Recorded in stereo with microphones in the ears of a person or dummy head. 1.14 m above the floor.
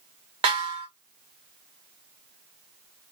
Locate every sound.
0.4 s a snare drum: 30° right (ahead or behind), 2.5 m